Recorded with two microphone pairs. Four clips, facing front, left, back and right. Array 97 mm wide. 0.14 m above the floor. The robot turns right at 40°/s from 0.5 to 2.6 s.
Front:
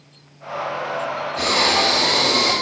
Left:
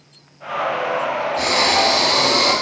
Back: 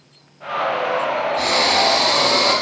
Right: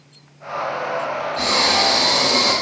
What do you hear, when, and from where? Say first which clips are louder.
1.4 s breathing: left 1 dB, front 2 dB; 20° left, 1.5 m; by 2.5 s 65° left, 1.5 m